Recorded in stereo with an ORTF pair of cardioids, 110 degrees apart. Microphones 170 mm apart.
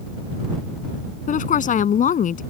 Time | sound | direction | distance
1.3 | a woman speaking | 50° left | ?